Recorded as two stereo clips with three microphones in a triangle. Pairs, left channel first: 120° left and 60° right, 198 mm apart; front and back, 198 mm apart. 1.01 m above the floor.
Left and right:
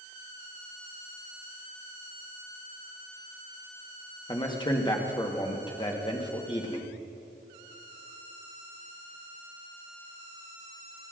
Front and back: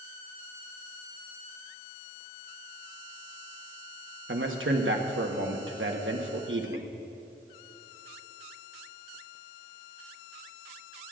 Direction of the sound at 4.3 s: 175° right.